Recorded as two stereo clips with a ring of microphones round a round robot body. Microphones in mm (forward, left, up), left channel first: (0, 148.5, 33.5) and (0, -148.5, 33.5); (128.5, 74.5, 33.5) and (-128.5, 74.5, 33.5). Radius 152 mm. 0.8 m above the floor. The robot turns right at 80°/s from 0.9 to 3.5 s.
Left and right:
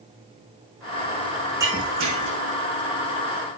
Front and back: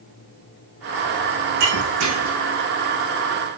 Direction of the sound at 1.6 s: 170° right.